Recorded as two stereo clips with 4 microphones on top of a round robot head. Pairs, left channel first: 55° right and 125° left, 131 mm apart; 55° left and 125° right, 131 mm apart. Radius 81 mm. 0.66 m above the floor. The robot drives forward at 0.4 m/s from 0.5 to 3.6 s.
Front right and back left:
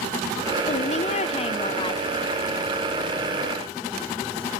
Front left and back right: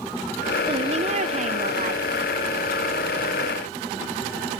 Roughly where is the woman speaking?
Right.